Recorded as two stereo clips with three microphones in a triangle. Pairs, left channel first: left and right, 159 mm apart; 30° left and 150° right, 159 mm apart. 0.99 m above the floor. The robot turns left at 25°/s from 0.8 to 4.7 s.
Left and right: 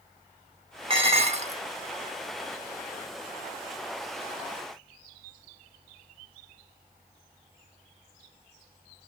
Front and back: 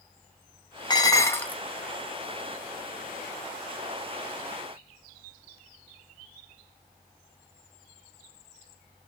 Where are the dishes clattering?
35° right, 0.7 m; by 1.6 s 50° right, 0.7 m.